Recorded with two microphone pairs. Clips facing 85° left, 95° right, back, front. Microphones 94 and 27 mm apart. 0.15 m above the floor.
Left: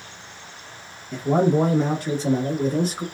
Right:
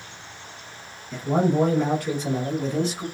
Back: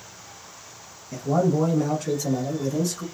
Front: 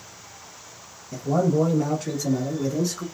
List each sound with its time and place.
1.1 s a man speaking: 140° left, 1.1 m; by 3.0 s 45° left, 1.4 m